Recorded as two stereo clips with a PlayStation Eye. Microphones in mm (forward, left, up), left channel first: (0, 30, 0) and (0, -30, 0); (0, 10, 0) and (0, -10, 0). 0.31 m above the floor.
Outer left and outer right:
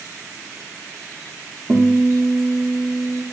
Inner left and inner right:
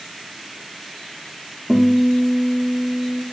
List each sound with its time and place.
1.7 s a guitar: 15° right (ahead or behind), 3 m